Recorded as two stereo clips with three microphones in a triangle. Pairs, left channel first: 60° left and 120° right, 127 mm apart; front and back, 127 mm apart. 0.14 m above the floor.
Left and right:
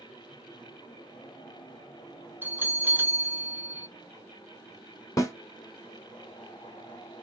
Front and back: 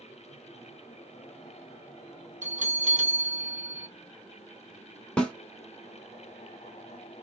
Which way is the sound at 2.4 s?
165° left.